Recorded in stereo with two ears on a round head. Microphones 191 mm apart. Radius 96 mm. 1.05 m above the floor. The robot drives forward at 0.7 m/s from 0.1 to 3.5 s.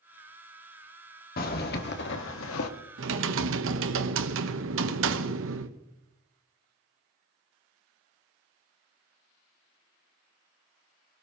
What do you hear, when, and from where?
1.4 s a zipper: 45° left (ahead or behind), 1.8 m; by 2.7 s 75° left (ahead or behind), 1.3 m
3.0 s typing on a keyboard: 60° right (ahead or behind), 1.1 m; by 5.8 s 65° right (ahead or behind), 1.0 m